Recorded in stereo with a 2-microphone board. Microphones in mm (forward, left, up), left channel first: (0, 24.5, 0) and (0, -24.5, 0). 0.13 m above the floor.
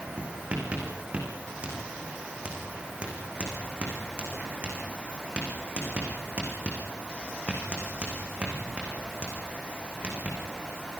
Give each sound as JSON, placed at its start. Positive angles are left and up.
{"t": 0.2, "sound": "writing", "side_deg": -25, "distance_m": 6.0}